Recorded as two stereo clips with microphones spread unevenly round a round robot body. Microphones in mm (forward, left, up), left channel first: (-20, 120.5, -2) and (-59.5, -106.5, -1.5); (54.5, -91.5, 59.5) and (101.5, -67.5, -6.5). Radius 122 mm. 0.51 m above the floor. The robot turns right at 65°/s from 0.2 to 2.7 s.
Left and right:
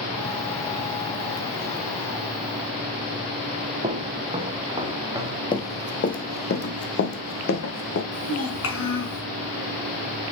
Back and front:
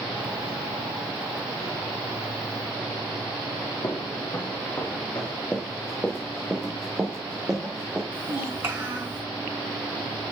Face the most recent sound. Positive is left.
turn(degrees=40)